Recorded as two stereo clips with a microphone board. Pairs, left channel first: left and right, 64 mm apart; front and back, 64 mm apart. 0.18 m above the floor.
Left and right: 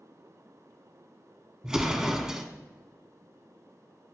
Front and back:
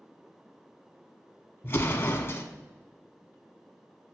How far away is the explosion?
About 0.5 m.